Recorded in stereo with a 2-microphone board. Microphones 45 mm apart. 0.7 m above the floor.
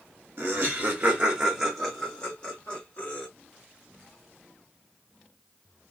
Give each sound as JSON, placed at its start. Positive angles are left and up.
{"t": 0.4, "sound": "laughter", "side_deg": -45, "distance_m": 0.8}